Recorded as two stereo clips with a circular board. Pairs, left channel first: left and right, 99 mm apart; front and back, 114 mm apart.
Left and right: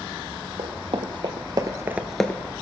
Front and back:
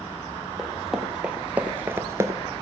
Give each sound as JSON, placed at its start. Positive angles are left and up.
{"t": 0.6, "sound": "running footsteps", "azimuth_deg": -90, "distance_m": 1.7}